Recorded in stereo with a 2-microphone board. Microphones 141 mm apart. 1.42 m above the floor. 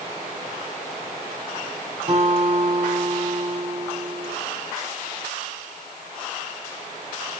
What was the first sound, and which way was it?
A guitar, 45° right (ahead or behind).